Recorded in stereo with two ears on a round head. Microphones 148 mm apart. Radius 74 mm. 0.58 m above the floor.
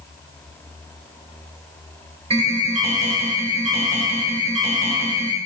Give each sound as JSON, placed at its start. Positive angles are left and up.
{"t": 2.3, "sound": "an alarm", "side_deg": -40, "distance_m": 3.5}